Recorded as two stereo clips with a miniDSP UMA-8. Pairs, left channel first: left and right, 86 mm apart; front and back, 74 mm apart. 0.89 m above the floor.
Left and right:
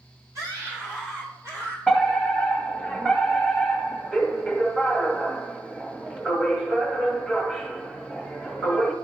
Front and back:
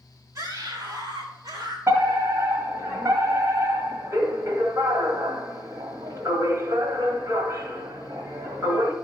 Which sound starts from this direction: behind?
A fire alarm, at 1.9 s.